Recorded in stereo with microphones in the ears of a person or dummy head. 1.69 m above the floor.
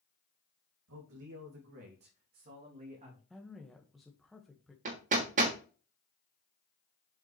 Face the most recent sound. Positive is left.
turn(degrees=-40)  # may be behind; listen again after turning